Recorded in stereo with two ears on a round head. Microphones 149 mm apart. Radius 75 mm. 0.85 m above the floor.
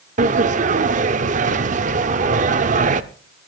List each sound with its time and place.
0.2 s a sliding door: 50° right (ahead or behind), 0.8 m